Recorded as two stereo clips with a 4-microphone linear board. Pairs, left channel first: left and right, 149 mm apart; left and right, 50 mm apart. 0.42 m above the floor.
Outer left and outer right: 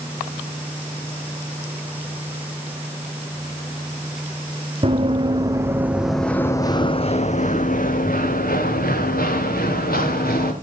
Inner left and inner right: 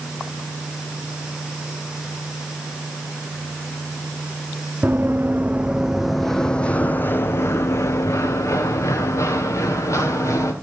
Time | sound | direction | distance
4.8 | running footsteps | 35° right (ahead or behind) | 1.3 m